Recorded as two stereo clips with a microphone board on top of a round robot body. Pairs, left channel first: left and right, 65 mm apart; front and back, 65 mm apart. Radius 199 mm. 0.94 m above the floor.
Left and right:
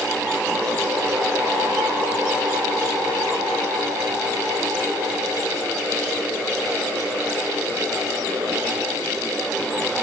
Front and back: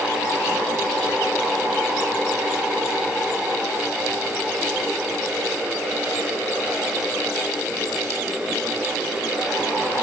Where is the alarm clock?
No alarm clock in this recording.